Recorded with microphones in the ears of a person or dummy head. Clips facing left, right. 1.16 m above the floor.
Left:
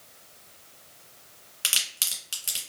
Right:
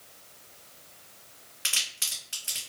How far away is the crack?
About 1.7 m.